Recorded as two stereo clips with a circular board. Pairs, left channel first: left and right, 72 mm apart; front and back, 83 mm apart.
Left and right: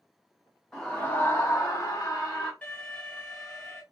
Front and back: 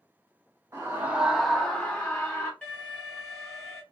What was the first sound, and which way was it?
A scream, 165° left.